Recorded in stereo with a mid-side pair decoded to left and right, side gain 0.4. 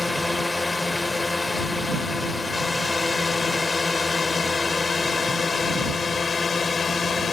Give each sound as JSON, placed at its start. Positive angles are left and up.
{"t": 0.0, "sound": "a drone", "azimuth_deg": 20}